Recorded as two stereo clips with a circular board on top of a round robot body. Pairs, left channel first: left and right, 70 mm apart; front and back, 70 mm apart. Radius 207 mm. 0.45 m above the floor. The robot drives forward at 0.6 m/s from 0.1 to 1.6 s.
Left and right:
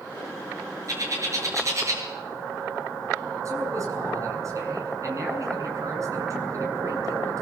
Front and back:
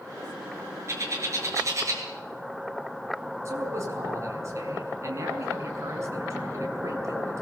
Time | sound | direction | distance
0.9 | a bird | 130° right | 6.5 m
3.5 | a man speaking | 135° right | 7 m